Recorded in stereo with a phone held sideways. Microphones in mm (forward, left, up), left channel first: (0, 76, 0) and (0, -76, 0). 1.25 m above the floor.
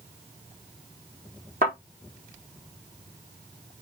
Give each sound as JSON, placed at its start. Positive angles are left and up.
{"t": 1.6, "sound": "a thud", "side_deg": -65, "distance_m": 6.0}